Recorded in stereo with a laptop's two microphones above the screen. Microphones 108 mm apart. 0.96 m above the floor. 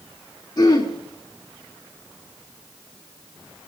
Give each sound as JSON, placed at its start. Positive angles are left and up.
{"t": 0.6, "sound": "throat clearing", "side_deg": 35, "distance_m": 3.0}